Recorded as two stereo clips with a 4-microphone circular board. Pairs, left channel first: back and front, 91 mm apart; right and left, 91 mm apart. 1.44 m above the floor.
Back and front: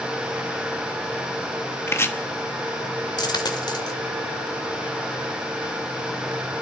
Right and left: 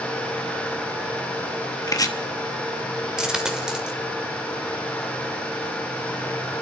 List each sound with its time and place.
1.9 s chopping: 125° right, 1.1 m
3.2 s a dropped coin: 170° left, 1.5 m